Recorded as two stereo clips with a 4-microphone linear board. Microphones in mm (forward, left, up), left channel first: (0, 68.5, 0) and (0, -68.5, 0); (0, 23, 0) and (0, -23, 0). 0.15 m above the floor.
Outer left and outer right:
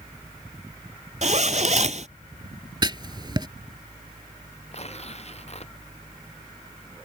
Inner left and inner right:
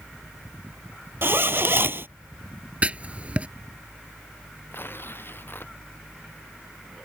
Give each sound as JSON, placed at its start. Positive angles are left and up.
{"t": 1.2, "sound": "a zipper", "side_deg": -55}
{"t": 2.8, "sound": "writing", "side_deg": -30}
{"t": 4.7, "sound": "tearing paper", "side_deg": 45}